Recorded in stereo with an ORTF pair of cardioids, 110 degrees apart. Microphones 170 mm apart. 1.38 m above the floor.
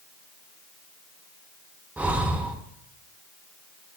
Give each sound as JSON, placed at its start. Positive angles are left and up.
{"t": 2.0, "sound": "breathing", "azimuth_deg": -10, "distance_m": 0.9}